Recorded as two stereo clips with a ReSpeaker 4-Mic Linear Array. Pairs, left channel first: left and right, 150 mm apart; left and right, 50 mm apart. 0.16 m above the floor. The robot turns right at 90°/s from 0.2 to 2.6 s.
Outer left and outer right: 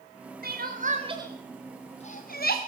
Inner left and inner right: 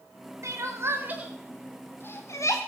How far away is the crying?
About 4.5 m.